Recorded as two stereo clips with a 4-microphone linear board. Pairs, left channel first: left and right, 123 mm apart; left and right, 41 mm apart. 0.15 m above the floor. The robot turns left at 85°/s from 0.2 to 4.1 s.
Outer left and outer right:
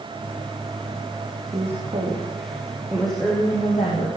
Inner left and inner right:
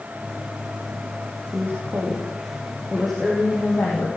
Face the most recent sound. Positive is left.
turn(degrees=90)